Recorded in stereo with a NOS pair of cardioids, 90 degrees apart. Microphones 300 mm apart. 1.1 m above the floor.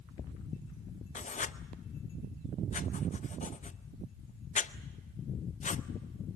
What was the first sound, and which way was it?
Writing, 25° left.